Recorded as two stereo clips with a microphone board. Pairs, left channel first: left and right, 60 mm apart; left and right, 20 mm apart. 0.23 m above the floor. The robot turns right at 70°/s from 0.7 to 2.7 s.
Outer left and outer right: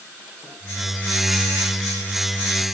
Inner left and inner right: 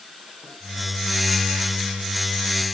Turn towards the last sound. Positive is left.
No sound to turn to.